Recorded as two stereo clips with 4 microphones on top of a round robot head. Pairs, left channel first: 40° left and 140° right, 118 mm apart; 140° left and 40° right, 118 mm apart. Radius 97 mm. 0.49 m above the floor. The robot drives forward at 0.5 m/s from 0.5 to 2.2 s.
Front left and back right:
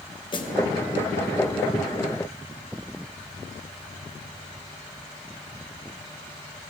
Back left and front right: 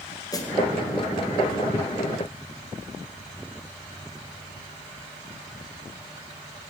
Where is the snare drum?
85° left, 1.8 m.